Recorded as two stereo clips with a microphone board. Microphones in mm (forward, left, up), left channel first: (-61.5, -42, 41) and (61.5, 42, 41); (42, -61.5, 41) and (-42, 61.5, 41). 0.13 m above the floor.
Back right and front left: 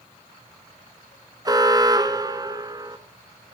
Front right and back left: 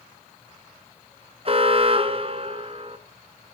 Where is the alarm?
90° left, 1.6 m.